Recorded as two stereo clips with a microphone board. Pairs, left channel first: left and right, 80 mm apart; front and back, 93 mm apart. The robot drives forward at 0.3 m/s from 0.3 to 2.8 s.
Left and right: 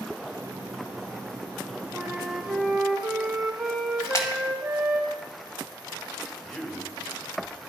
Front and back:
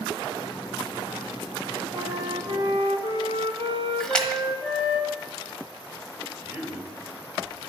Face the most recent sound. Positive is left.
turn(degrees=140)